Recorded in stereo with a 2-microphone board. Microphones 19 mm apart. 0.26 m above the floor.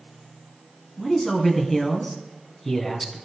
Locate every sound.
1.0 s a man speaking: 10° left (ahead or behind), 2.5 m